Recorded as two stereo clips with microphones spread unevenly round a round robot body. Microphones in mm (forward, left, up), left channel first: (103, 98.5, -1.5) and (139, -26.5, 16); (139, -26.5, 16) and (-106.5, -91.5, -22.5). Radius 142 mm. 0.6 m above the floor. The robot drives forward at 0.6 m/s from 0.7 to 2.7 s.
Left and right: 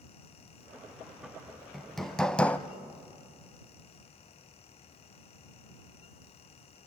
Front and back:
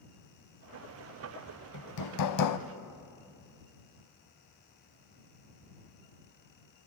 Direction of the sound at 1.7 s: 15° left.